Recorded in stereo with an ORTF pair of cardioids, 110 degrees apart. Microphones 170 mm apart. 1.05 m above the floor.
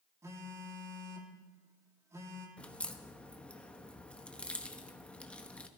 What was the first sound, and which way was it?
A phone buzzing, 15° right.